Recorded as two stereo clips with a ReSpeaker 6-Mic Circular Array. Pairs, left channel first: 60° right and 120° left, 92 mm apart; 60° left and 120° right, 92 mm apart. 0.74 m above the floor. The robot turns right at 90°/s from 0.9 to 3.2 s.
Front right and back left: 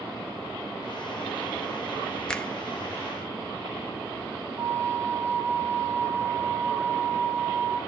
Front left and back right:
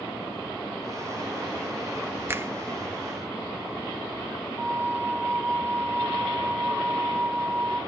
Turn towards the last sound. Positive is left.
turn(degrees=180)